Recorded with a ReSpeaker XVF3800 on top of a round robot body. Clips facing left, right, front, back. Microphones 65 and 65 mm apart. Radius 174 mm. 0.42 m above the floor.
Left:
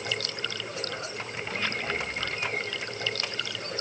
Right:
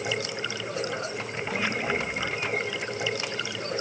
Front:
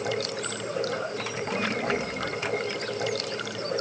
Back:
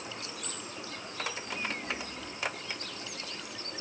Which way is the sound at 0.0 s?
15° right.